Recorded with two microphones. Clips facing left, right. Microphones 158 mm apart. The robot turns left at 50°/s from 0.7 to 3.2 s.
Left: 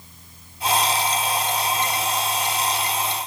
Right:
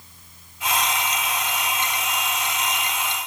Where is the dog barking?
No dog barking in this recording.